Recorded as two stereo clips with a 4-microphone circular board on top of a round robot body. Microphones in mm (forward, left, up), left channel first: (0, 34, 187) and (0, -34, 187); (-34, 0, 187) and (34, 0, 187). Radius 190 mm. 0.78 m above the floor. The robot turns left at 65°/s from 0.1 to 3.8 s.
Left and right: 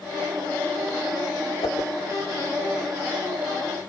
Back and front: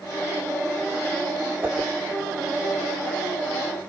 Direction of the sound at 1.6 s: 60° left.